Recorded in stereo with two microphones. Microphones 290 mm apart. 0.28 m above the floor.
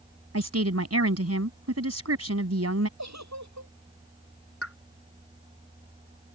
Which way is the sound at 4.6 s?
50° left (ahead or behind).